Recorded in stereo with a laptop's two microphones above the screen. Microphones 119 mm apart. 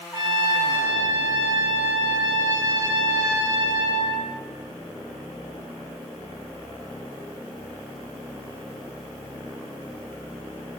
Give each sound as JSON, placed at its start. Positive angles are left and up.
{"t": 0.1, "sound": "a trumpet", "side_deg": -35, "distance_m": 0.7}